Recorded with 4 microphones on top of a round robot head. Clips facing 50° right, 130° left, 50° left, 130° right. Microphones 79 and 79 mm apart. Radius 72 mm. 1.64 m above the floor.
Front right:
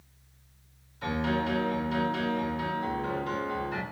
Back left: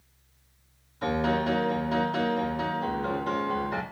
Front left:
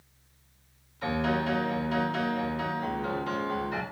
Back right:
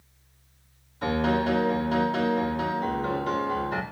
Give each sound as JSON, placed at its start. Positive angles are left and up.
{"t": 1.0, "sound": "a piano", "azimuth_deg": 180, "distance_m": 2.5}